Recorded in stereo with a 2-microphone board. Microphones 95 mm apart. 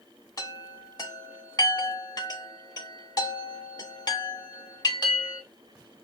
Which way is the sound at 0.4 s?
45° left (ahead or behind).